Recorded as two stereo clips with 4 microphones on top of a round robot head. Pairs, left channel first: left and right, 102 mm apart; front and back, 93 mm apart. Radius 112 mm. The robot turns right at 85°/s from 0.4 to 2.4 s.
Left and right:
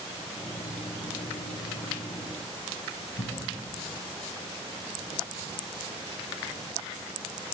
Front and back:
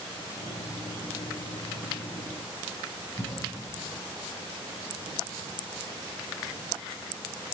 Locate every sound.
3.2 s a cough: 80° left, 7 m